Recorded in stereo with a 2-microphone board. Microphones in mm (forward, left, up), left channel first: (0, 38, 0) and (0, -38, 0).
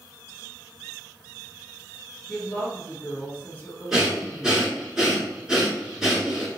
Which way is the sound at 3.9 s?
10° right (ahead or behind).